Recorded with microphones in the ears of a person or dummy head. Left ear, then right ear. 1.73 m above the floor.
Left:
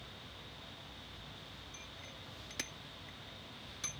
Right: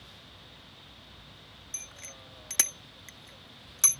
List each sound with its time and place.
1.7 s a bicycle bell: 45° right (ahead or behind)